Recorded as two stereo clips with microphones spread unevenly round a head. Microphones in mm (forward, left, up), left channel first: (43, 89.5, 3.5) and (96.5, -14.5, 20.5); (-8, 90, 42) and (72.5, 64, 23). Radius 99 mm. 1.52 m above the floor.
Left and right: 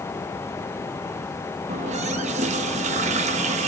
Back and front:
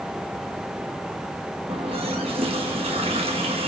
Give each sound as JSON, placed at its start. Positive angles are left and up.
{"t": 1.7, "sound": "a running tap", "azimuth_deg": -75, "distance_m": 1.3}